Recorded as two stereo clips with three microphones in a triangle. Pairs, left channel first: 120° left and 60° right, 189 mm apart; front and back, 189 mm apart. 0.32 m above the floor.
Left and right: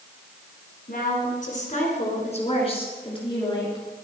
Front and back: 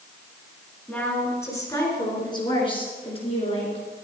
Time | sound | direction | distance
0.9 | a woman speaking | 80° left | 3.5 m